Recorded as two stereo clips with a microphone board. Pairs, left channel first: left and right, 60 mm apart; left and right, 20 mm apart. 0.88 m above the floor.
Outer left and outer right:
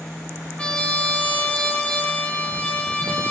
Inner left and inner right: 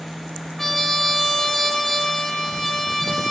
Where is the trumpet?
20° left (ahead or behind), 0.5 m.